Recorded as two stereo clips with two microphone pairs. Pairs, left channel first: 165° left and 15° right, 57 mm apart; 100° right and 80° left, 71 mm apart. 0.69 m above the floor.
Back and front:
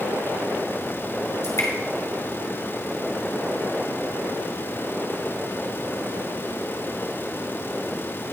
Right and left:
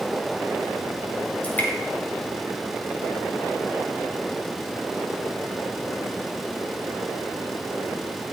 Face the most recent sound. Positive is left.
turn(degrees=-165)